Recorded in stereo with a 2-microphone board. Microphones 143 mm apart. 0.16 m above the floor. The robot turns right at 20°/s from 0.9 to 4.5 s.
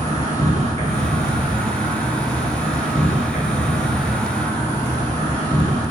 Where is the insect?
60° right, 1.7 m; by 5.9 s 10° left, 1.7 m.